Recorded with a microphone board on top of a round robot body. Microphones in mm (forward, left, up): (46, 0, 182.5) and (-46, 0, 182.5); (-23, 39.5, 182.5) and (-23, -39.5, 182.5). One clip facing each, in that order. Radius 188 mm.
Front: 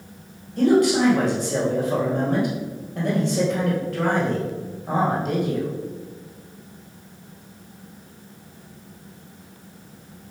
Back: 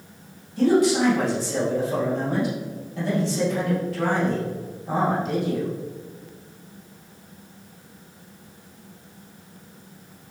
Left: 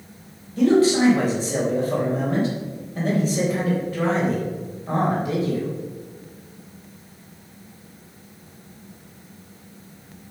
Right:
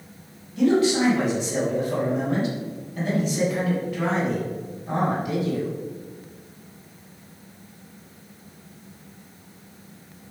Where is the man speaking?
35° left, 3.5 m.